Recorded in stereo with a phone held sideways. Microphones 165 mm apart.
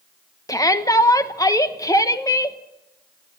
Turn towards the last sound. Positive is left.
turn(degrees=20)  # may be behind; listen again after turning